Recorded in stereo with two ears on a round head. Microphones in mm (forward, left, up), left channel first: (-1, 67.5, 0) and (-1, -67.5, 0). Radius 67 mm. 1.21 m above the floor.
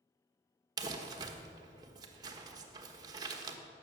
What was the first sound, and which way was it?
Crumpling, 25° right (ahead or behind).